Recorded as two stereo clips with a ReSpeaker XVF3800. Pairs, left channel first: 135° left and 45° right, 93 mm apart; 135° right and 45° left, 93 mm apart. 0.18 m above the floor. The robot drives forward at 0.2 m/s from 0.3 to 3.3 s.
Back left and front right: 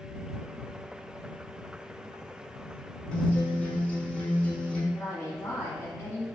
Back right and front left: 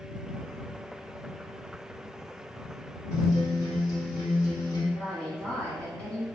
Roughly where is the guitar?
Behind right.